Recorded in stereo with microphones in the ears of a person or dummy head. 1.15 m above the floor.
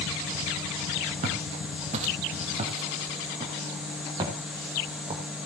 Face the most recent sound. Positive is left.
turn(degrees=-25)  # may be behind; listen again after turning